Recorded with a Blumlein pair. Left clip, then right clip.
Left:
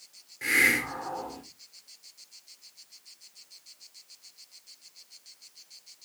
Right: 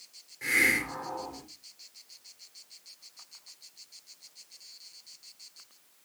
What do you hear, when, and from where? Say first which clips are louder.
0.4 s a hiss: left 2 dB; 15° left, 2.0 m